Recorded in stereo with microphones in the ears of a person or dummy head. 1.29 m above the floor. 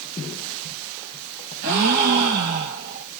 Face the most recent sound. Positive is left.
turn(degrees=-55)  # may be behind; listen again after turning